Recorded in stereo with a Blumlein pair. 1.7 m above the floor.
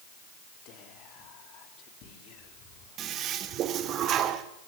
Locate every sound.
0.7 s whispering: 40° left, 4 m
3.0 s a toilet flushing: 30° right, 1.8 m